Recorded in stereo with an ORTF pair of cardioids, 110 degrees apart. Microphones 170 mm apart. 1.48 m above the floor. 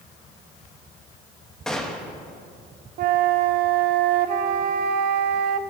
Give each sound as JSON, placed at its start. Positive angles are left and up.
{"t": 1.7, "sound": "a gunshot", "azimuth_deg": 5, "distance_m": 1.4}
{"t": 3.0, "sound": "a flute", "azimuth_deg": -65, "distance_m": 0.7}